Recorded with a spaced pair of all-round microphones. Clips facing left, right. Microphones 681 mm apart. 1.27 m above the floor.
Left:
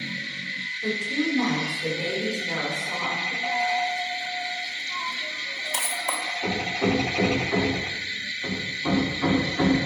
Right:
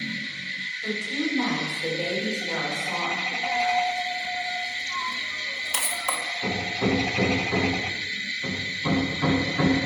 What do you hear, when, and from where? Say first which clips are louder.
0.8 s a woman speaking: left 2 dB; 65° left (ahead or behind), 4 m; by 3.3 s 50° left (ahead or behind), 5 m
3.4 s a dropped coin: right 2 dB; 40° right (ahead or behind), 0.8 m
6.4 s hammering: left 1 dB; 40° right (ahead or behind), 2 m